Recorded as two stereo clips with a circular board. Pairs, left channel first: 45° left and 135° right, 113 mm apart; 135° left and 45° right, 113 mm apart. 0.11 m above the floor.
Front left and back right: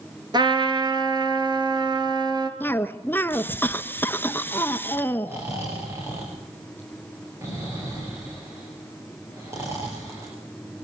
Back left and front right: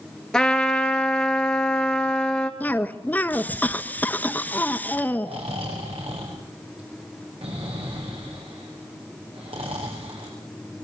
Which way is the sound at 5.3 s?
70° right.